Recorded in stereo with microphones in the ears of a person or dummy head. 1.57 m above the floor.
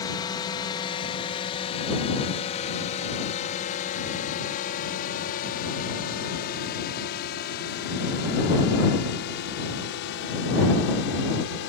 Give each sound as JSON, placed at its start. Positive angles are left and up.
{"t": 0.0, "sound": "a drone", "side_deg": 25}